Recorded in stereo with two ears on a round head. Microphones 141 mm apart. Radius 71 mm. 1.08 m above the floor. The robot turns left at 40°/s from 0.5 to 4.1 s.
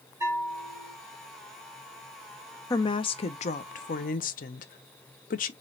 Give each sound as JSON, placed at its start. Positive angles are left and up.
{"t": 0.2, "sound": "a bell", "side_deg": -20, "distance_m": 2.0}
{"t": 2.7, "sound": "a woman speaking", "azimuth_deg": 150, "distance_m": 0.6}